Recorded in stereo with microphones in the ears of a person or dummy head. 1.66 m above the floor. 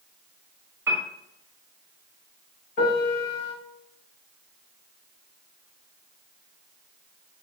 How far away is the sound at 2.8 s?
About 1.8 m.